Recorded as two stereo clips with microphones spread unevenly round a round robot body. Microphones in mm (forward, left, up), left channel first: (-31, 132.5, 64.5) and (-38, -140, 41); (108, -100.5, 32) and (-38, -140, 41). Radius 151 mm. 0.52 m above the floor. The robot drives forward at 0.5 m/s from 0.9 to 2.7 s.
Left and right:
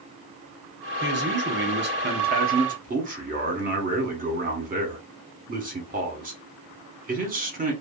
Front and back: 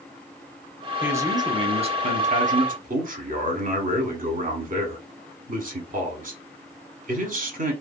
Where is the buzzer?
I don't hear a buzzer.